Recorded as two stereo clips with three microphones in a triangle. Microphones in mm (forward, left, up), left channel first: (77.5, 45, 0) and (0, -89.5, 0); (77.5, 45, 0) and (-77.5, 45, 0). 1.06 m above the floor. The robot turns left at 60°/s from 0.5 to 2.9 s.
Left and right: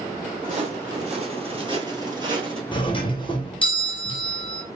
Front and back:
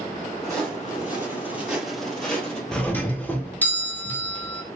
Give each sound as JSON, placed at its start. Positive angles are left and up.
{"t": 0.4, "sound": "footsteps", "azimuth_deg": -80, "distance_m": 2.0}
{"t": 2.7, "sound": "a doorbell", "azimuth_deg": 85, "distance_m": 0.7}